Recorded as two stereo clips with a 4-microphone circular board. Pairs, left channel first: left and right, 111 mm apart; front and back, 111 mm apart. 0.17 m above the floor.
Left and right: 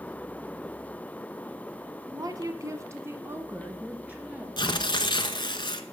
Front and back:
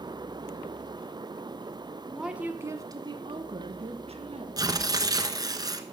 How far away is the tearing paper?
About 1.0 m.